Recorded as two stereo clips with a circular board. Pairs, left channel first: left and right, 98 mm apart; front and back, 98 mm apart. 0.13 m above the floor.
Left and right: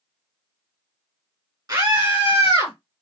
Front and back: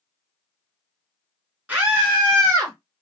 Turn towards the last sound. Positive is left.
turn(degrees=-130)